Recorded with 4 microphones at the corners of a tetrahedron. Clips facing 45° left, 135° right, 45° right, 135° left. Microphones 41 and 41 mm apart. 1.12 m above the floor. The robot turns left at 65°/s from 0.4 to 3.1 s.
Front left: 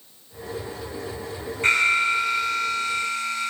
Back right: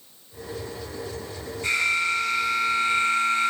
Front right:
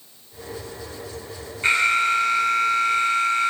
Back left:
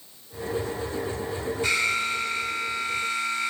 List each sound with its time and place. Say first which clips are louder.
1.6 s an alarm: front left 4 dB, front right 7 dB; 5° left, 3 m; by 3.5 s 90° right, 3 m